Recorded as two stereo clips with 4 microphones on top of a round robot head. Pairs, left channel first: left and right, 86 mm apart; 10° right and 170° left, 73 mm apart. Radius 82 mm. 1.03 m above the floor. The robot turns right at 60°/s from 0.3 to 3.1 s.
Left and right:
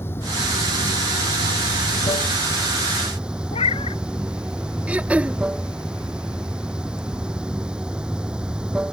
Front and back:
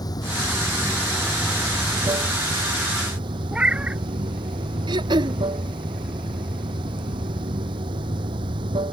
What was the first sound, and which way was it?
Running water, 25° left.